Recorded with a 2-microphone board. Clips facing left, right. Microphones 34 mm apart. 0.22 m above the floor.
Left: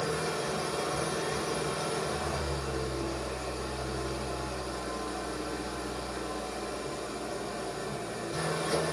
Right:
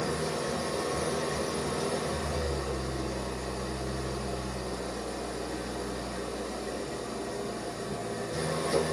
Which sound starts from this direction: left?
An engine running, at 0.0 s.